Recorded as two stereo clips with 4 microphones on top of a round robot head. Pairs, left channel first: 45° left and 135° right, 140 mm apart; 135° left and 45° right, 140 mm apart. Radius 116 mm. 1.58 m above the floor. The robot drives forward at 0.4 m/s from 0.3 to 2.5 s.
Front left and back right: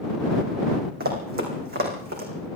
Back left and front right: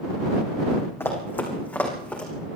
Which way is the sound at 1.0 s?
150° right.